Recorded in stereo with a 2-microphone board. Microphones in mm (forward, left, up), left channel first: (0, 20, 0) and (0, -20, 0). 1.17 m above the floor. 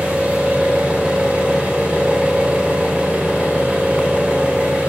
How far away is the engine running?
About 2.5 m.